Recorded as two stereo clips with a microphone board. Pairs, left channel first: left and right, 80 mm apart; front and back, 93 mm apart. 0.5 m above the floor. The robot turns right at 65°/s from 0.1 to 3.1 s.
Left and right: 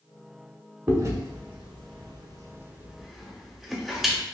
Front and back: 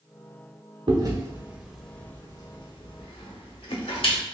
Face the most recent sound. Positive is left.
turn(degrees=-5)